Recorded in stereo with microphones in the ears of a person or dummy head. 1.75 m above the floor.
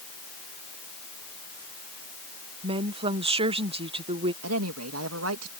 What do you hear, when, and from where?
2.6 s a woman speaking: 35° right (ahead or behind)
4.4 s a woman speaking: 90° right